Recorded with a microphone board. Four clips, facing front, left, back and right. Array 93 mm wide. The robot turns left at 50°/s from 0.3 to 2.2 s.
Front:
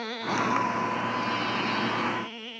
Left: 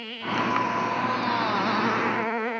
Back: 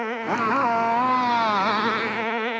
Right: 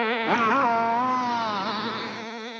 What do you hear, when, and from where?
0.0 s a motorcycle: 115° right; by 2.6 s 150° left